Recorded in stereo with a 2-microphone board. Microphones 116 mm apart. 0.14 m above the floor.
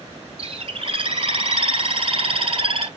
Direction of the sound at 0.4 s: 50° right (ahead or behind).